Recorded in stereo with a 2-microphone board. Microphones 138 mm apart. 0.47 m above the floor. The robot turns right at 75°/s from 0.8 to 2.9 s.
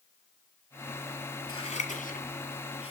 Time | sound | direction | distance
1.5 | scissors | 30° left (ahead or behind) | 5 m